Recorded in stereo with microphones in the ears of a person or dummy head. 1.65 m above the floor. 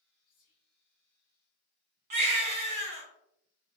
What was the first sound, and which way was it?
Whispering, 25° left (ahead or behind).